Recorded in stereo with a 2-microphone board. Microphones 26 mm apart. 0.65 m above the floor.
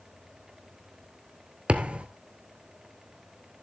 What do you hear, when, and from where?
1.7 s a thud: 50° right (ahead or behind), 0.9 m